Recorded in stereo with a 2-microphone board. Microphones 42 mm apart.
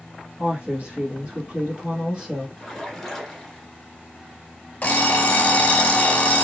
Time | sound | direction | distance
0.4 | a woman speaking | 35° right (ahead or behind) | 1.6 m
2.6 | a splash | centre (ahead or behind) | 1.4 m
4.8 | an alarm clock | 40° left (ahead or behind) | 0.8 m